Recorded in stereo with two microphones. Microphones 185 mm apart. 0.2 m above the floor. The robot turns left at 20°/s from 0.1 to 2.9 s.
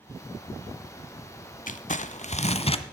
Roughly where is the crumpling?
Left.